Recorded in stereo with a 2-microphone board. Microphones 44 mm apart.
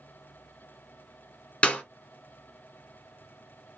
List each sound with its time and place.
1.6 s a clap: 25° left (ahead or behind), 1.4 m